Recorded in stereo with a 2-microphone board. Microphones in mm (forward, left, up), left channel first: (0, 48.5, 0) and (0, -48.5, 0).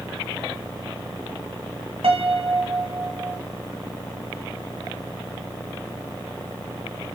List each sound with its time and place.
2.0 s a piano: 80° right, 1.4 m